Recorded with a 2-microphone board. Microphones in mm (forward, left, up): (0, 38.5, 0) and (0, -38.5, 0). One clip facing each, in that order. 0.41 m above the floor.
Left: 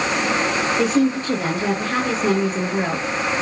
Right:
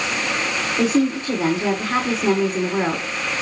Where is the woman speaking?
30° right (ahead or behind), 4.5 m.